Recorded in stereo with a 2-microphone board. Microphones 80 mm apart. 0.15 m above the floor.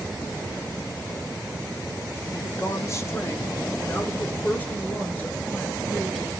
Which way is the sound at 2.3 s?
40° left (ahead or behind).